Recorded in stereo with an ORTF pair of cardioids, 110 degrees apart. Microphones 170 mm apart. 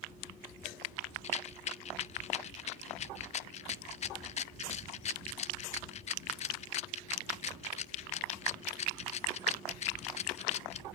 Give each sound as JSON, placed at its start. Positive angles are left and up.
{"t": 1.2, "sound": "a rattle", "azimuth_deg": 40, "distance_m": 0.7}